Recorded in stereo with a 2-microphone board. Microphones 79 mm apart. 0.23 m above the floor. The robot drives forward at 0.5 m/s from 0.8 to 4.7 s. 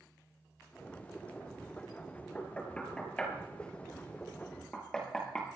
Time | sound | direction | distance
2.4 | knocking | 15° left (ahead or behind) | 3.5 m